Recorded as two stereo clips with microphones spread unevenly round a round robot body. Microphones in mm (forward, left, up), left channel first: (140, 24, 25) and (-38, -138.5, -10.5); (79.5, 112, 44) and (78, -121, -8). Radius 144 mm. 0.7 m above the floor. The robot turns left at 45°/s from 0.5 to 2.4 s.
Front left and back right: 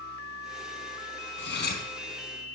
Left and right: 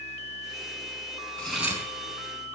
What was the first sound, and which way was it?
Cutlery clinking, 5° left.